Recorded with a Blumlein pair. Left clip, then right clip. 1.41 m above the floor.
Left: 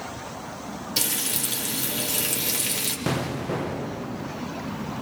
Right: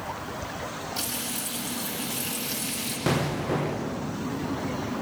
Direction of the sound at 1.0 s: 55° left.